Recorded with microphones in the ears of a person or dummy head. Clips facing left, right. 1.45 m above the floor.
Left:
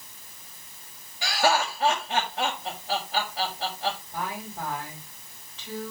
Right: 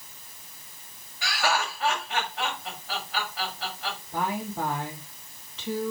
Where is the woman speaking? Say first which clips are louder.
Right 5 dB; 70° right (ahead or behind), 3.5 m.